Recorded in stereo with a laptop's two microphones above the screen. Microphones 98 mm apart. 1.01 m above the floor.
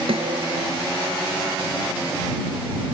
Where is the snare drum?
70° right (ahead or behind).